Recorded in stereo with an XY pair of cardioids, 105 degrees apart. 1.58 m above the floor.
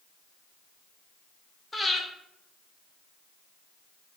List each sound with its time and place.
1.7 s breathing: 20° left, 0.9 m